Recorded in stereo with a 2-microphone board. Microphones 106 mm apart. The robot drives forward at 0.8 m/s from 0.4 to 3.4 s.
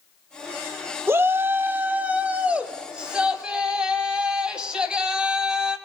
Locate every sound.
1.1 s a shout: 25° right (ahead or behind), 0.7 m; by 5.8 s 10° right (ahead or behind), 2 m